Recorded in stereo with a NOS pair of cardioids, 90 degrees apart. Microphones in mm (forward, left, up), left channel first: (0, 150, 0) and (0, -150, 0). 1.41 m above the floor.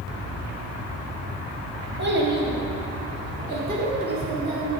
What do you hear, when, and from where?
2.0 s a child speaking: 35° right, 1.5 m; by 4.8 s 30° right, 3 m